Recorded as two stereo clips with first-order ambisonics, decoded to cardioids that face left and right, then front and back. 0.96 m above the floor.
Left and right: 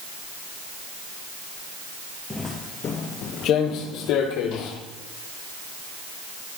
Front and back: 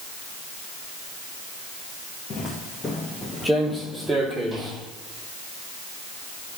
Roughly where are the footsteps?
Ahead.